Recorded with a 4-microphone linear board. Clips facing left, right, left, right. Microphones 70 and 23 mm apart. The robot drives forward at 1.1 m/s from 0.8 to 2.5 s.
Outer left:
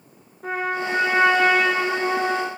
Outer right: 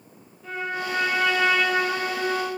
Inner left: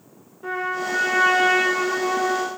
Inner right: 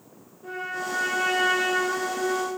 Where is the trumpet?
55° left (ahead or behind), 6 m; by 2.5 s 70° left (ahead or behind), 5 m.